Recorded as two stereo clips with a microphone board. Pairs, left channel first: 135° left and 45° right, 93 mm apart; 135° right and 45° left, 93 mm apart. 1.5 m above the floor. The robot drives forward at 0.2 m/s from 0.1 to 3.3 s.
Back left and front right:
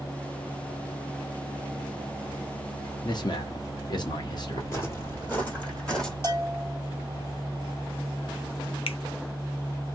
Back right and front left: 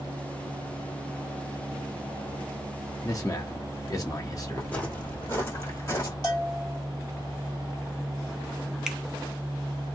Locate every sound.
3.0 s a man speaking: 175° left, 0.8 m
4.6 s footsteps: 160° left, 1.8 m; by 6.1 s 145° right, 1.9 m
6.2 s a bell: 170° right, 2.0 m
8.9 s a finger snap: 130° left, 0.5 m